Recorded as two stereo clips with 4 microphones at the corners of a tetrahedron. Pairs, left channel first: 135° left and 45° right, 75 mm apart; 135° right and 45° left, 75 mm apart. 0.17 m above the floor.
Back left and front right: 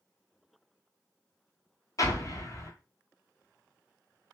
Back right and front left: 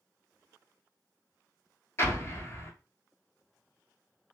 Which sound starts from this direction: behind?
An explosion, at 2.0 s.